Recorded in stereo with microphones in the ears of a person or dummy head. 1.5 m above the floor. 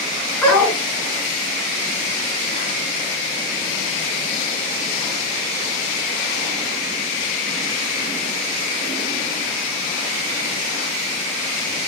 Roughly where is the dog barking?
Centre.